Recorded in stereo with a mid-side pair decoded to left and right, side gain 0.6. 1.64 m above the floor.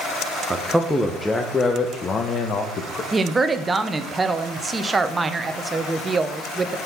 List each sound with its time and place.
0.5 s a man speaking: 20° right, 1.3 m; by 3.0 s 50° left, 1.8 m
3.1 s a woman speaking: 20° right, 1.1 m